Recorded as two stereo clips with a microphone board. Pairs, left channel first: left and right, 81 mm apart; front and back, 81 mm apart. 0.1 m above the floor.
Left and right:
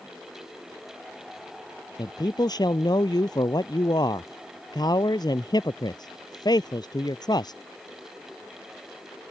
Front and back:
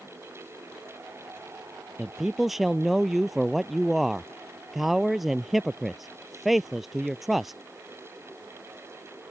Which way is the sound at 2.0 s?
95° left.